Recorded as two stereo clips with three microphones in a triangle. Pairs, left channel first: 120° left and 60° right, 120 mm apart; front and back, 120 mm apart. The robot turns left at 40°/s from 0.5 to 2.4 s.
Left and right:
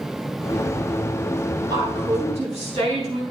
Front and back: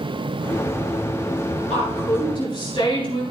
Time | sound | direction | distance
1.7 | a woman speaking | 10° right | 7 m